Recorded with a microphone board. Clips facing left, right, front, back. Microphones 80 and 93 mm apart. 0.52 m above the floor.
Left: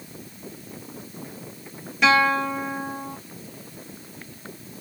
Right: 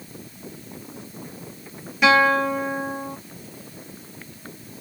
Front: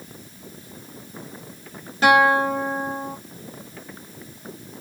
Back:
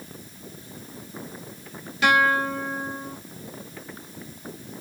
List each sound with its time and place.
2.0 s a guitar: 5° right, 1.6 m